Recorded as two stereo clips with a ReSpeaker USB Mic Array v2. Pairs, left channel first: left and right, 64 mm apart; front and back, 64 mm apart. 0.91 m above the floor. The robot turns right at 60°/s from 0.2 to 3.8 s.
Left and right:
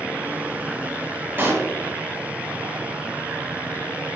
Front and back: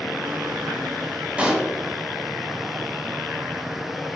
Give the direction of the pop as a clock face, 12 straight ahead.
4 o'clock.